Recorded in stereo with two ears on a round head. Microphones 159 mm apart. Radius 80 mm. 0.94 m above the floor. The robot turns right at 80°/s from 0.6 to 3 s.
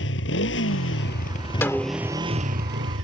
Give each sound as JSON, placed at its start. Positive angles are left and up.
{"t": 0.0, "sound": "a motorcycle", "azimuth_deg": 75}
{"t": 1.6, "sound": "a snare drum", "azimuth_deg": 165}